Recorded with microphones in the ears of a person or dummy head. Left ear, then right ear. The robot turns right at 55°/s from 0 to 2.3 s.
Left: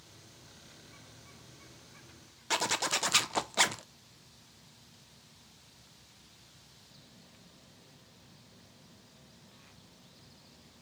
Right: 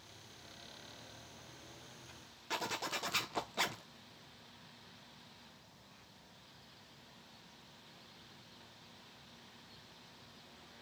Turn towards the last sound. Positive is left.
turn(degrees=20)  # may be behind; listen again after turning